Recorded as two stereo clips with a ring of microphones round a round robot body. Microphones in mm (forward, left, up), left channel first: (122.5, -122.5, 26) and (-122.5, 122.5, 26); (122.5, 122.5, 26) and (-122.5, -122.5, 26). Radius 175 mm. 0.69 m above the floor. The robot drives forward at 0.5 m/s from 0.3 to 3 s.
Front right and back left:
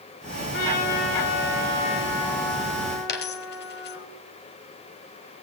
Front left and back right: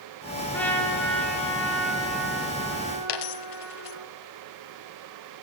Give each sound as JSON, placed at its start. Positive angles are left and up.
{"t": 0.5, "sound": "a trumpet", "azimuth_deg": -40, "distance_m": 4.5}
{"t": 3.1, "sound": "a dropped coin", "azimuth_deg": 15, "distance_m": 1.2}